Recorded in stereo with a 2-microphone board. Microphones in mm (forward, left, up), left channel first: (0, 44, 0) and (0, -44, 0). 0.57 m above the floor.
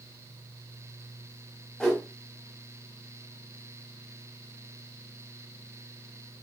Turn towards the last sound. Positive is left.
turn(degrees=5)  # may be behind; listen again after turning